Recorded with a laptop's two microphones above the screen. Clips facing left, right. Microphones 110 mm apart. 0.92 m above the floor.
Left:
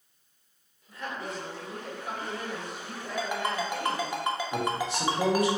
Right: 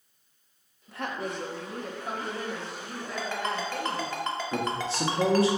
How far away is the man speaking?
About 1.0 m.